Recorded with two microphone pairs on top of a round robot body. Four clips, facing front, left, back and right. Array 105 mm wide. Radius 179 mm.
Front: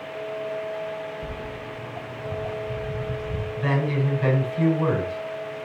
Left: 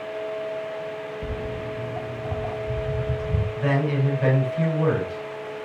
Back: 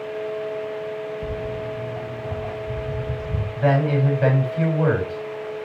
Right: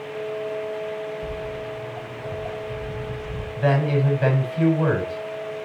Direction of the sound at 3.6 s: 150° right.